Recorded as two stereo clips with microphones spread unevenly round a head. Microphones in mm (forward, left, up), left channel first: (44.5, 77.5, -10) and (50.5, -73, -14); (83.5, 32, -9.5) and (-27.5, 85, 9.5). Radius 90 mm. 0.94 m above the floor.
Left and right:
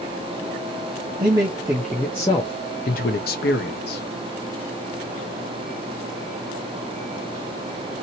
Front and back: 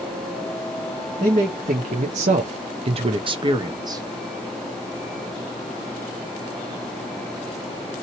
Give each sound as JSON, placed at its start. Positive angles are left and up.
{"t": 1.2, "sound": "a man speaking", "azimuth_deg": -150, "distance_m": 0.8}